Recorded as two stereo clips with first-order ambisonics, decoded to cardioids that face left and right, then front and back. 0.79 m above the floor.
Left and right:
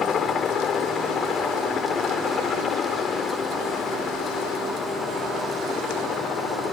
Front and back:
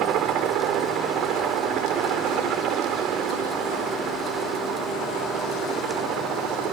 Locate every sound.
0.0 s a helicopter: 145° left